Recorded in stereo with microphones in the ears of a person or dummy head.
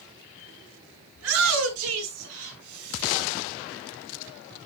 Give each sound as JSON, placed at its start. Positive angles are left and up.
{"t": 1.1, "sound": "a shout", "side_deg": -85, "distance_m": 3.5}